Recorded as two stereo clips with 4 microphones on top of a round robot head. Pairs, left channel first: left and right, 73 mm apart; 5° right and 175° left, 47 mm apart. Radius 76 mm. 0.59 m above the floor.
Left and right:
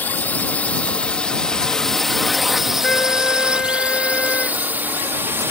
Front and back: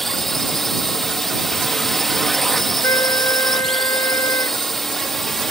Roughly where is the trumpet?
Ahead.